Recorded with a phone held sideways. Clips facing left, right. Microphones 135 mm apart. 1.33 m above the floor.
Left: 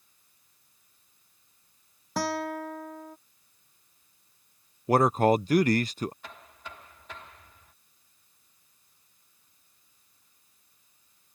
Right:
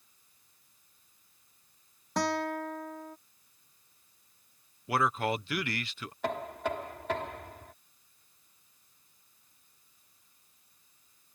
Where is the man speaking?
40° left (ahead or behind).